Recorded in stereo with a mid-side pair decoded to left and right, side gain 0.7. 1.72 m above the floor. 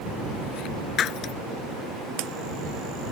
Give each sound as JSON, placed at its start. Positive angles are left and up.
{"t": 1.0, "sound": "breaking glass", "azimuth_deg": 45}